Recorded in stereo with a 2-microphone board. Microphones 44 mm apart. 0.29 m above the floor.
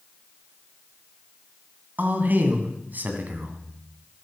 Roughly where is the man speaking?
Right.